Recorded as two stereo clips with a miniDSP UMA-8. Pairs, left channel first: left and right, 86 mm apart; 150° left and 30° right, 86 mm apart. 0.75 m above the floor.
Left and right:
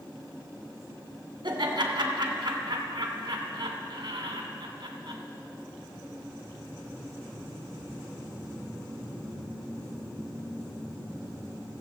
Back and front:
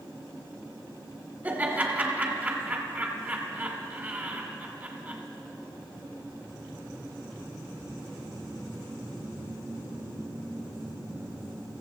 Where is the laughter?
95° right, 2 m.